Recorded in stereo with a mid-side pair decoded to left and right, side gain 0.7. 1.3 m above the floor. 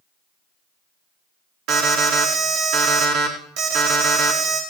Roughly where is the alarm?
Ahead right.